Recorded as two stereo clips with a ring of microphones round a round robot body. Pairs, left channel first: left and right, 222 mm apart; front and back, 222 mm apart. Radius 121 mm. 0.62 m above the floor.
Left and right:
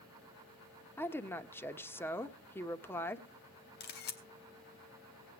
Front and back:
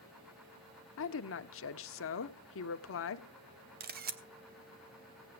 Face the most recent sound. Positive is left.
turn(degrees=135)